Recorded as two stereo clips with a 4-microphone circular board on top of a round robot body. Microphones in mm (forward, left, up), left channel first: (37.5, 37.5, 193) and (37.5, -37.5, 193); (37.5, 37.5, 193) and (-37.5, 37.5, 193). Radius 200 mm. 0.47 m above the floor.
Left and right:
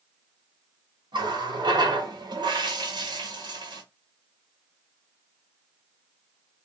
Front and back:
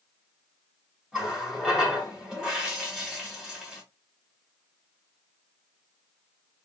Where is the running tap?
100° right, 2.5 m.